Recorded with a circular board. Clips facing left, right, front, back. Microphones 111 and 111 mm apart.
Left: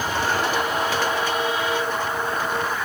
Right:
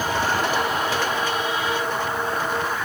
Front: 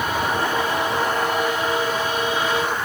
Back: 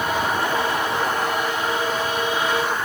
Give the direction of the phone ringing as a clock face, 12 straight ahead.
I don't hear a phone ringing.